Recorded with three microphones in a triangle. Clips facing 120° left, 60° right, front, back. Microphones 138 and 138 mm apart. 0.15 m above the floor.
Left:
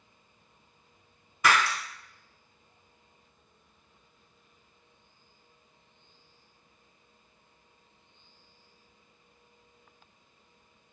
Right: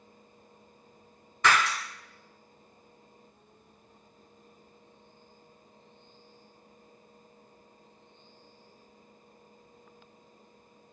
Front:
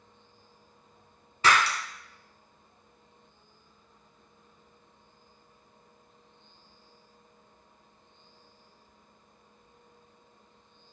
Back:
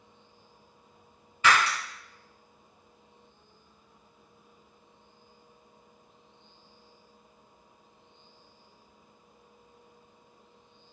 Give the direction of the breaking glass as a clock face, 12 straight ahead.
11 o'clock.